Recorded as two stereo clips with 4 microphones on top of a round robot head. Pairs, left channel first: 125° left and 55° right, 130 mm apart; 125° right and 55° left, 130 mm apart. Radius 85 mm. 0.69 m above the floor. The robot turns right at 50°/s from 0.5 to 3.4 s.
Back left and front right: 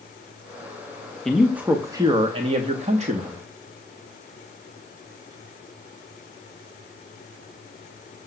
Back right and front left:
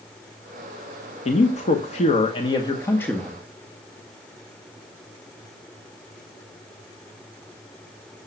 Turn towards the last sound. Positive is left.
turn(degrees=-40)